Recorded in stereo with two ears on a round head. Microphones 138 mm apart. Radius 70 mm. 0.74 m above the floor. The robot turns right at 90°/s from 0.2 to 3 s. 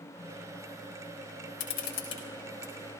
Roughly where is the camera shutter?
Left.